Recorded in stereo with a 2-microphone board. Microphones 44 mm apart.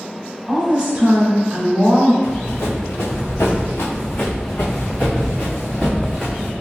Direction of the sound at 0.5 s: 25° right (ahead or behind).